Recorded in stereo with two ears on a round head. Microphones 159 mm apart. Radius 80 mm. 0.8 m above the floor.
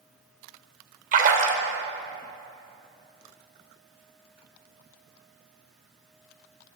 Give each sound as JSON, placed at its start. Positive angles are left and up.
{"t": 1.1, "sound": "a splash", "side_deg": -50, "distance_m": 1.1}